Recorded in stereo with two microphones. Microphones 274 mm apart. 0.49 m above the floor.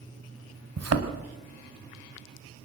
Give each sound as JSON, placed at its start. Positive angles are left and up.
{"t": 0.8, "sound": "a thud", "side_deg": -60, "distance_m": 1.4}